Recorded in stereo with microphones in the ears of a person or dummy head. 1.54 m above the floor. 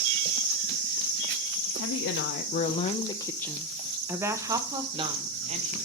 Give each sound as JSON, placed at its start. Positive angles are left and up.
{"t": 1.7, "sound": "a woman speaking", "side_deg": 70, "distance_m": 0.9}